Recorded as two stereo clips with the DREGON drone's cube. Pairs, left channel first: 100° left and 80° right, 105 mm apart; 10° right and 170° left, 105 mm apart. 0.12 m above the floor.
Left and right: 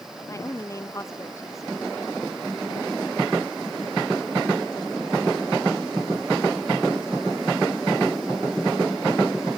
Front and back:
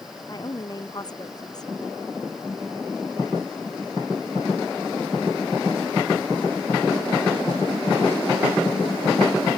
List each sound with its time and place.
0.3 s a woman speaking: 40° left